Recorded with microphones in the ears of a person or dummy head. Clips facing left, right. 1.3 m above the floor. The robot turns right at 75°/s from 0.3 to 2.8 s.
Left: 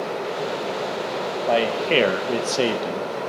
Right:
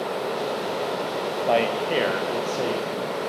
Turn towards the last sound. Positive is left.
turn(degrees=95)